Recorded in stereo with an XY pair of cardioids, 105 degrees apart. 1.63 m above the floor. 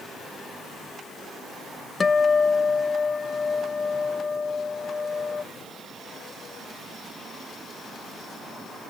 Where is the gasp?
No gasp in this recording.